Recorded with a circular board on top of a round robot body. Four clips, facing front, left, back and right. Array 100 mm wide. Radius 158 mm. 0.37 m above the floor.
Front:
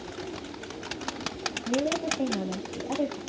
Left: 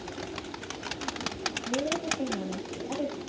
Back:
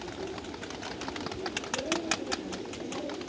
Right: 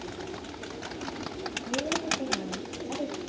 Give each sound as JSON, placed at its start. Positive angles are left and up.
{"t": 1.7, "sound": "a woman speaking", "azimuth_deg": 15, "distance_m": 3.5}